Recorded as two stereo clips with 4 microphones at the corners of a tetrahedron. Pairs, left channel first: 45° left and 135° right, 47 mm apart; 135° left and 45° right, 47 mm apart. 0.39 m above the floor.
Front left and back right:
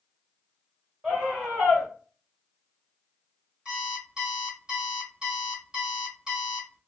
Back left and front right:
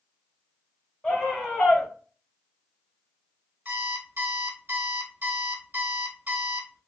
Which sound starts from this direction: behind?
A scream, at 1.0 s.